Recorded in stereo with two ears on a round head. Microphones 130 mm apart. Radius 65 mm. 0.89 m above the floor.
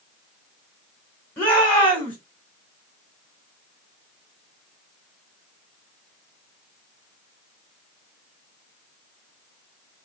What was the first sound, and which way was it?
A shout, 15° left (ahead or behind).